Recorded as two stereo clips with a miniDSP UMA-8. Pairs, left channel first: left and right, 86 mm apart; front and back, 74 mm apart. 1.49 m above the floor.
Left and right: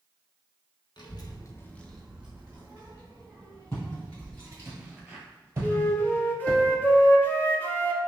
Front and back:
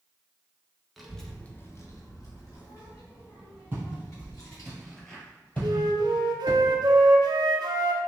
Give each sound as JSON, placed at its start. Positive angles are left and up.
{"t": 1.0, "sound": "a child speaking", "azimuth_deg": 90, "distance_m": 0.9}
{"t": 3.7, "sound": "footsteps", "azimuth_deg": 135, "distance_m": 2.0}
{"t": 5.6, "sound": "a flute", "azimuth_deg": 160, "distance_m": 0.6}